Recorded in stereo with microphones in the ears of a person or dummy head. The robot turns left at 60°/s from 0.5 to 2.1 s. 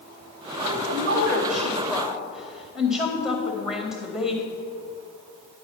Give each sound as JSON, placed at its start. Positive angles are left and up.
{"t": 0.6, "sound": "a woman speaking", "azimuth_deg": -95, "distance_m": 2.0}